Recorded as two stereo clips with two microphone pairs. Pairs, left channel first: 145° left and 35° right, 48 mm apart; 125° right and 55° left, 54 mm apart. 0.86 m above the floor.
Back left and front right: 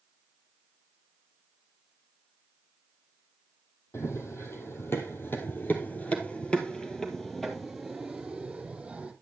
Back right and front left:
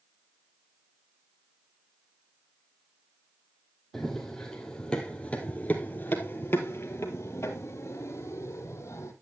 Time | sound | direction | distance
3.9 | running footsteps | 150° left | 2 m